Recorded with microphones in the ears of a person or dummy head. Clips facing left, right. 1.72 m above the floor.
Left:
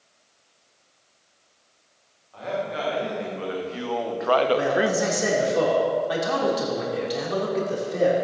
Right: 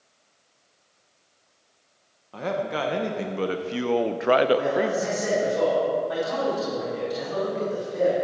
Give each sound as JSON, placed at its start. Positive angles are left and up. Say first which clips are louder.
{"t": 2.3, "sound": "a man speaking", "louder": "right 1 dB", "side_deg": -65, "distance_m": 1.8}
{"t": 4.5, "sound": "a man speaking", "louder": "left 1 dB", "side_deg": 75, "distance_m": 4.0}